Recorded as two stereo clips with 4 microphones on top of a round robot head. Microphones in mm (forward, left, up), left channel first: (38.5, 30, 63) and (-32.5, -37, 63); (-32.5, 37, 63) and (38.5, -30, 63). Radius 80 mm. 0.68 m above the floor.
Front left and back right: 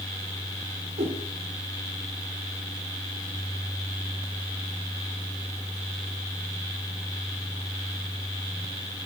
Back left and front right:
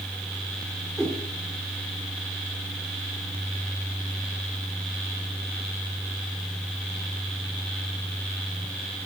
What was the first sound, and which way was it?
A whoosh, 135° right.